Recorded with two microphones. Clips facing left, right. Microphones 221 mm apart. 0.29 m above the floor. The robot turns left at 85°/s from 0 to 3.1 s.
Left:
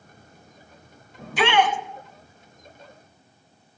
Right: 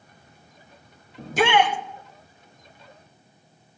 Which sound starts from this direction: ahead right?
A shout, at 1.2 s.